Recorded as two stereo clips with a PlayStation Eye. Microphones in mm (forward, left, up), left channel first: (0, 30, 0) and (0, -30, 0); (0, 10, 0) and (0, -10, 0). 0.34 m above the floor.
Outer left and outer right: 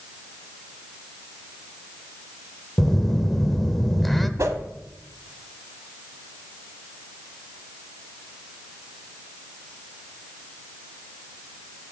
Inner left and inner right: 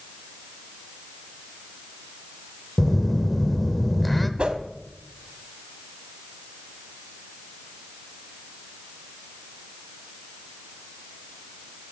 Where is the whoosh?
60° right (ahead or behind), 1.0 m.